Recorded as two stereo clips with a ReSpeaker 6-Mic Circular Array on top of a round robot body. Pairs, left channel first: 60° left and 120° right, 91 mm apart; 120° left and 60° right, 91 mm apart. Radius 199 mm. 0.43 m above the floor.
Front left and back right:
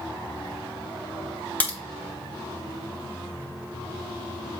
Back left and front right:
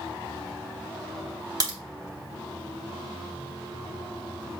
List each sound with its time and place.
1.6 s a crack: 10° right, 4 m